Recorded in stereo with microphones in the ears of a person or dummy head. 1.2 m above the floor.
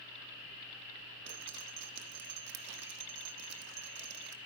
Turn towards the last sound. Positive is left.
turn(degrees=-65)  # may be behind; listen again after turning